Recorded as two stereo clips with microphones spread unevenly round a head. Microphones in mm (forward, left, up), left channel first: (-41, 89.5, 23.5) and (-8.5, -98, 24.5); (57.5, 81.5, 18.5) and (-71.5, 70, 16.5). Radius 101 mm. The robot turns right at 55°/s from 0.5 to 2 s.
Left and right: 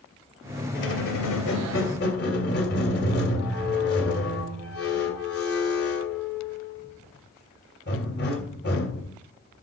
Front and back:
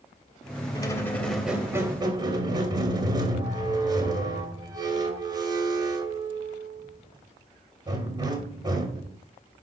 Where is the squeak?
60° left, 2.5 m; by 9.2 s 130° left, 2.5 m.